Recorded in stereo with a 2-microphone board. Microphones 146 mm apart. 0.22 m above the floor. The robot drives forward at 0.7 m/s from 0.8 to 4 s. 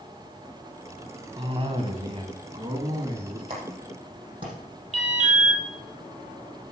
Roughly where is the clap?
Right.